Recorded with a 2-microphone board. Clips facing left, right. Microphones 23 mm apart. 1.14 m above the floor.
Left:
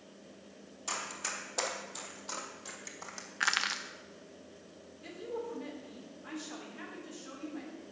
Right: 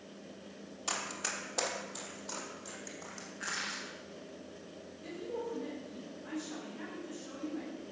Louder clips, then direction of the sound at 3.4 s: Left 8 dB; 65° left (ahead or behind).